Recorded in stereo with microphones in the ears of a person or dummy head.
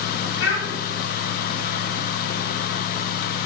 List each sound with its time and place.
0.4 s a child speaking: 60° left (ahead or behind), 3.5 m